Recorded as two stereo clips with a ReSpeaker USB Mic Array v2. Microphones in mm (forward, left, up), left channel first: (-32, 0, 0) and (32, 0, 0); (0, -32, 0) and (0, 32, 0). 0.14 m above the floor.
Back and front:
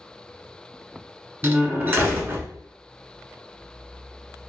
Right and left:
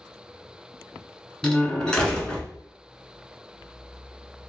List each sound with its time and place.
1.4 s a door slam: 25° right, 1.1 m